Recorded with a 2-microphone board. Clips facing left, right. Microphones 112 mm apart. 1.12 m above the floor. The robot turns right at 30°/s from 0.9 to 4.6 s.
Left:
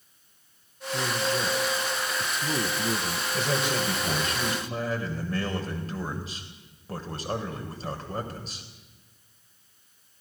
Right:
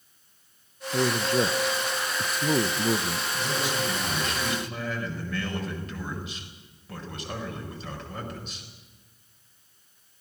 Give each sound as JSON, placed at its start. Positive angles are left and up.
{"t": 0.9, "sound": "a man speaking", "azimuth_deg": -85, "distance_m": 1.0}
{"t": 3.3, "sound": "a man speaking", "azimuth_deg": 105, "distance_m": 5.0}